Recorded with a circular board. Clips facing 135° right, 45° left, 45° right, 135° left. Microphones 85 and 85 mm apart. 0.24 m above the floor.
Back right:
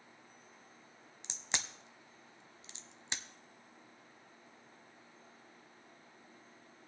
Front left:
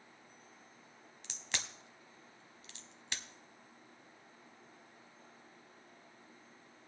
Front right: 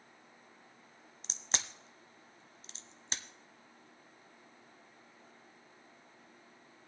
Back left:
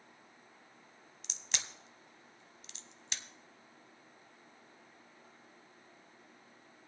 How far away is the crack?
About 0.9 m.